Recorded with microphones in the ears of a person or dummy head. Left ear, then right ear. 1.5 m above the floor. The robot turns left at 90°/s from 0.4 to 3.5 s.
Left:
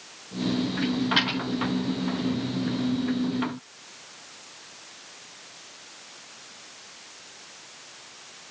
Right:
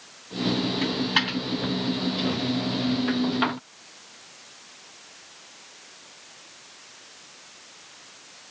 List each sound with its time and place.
0.8 s a dropped coin: 55° right (ahead or behind), 4 m; by 1.4 s 5° right (ahead or behind), 4 m